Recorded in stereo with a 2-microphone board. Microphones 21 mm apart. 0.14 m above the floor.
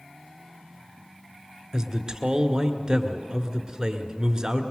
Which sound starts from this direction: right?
A man speaking, at 1.7 s.